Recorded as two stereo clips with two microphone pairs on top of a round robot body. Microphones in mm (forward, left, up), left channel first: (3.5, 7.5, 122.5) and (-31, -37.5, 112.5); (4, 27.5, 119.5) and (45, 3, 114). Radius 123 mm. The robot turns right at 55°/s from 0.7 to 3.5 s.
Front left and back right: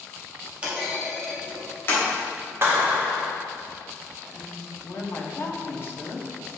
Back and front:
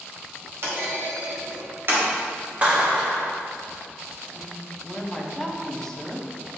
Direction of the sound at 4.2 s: 70° left.